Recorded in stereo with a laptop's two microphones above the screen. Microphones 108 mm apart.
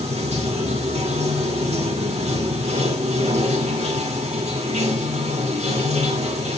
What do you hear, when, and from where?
0.0 s running water: 85° right, 1.9 m